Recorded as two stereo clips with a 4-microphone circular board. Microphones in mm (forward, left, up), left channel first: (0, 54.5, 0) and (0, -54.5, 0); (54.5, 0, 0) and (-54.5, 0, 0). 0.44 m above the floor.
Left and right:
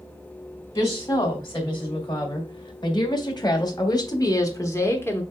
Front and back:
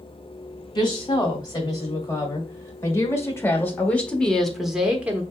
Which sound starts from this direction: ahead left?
A woman speaking, at 0.8 s.